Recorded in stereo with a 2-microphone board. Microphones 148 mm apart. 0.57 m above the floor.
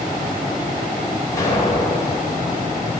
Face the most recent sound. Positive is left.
turn(degrees=25)  # may be behind; listen again after turning